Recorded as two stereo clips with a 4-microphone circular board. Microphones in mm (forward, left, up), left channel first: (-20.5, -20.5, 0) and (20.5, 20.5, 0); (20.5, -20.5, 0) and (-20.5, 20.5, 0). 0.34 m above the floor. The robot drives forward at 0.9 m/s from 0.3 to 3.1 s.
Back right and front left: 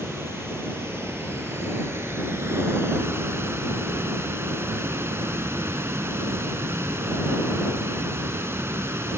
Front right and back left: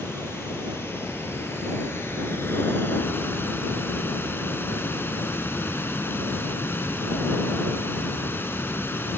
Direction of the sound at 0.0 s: Straight ahead.